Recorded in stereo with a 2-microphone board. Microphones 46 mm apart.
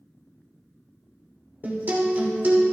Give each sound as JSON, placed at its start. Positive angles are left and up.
{"t": 1.6, "sound": "a guitar", "side_deg": -40, "distance_m": 2.5}